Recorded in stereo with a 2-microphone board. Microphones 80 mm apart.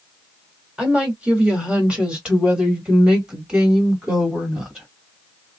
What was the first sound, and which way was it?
A woman speaking, 15° right (ahead or behind).